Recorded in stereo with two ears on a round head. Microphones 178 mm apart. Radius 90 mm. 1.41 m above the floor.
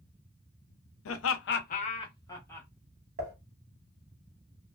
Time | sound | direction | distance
1.1 | laughter | 75° left (ahead or behind) | 0.6 m
3.2 | dishes clattering | 45° right (ahead or behind) | 1.0 m